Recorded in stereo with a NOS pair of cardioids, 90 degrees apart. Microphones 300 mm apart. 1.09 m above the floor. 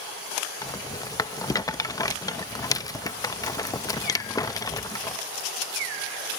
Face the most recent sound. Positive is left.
turn(degrees=10)